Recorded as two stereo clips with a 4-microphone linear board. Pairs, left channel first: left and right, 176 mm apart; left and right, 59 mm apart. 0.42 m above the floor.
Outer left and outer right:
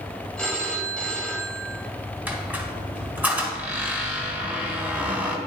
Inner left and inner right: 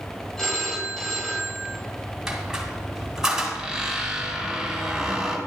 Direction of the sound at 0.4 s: 5° left (ahead or behind).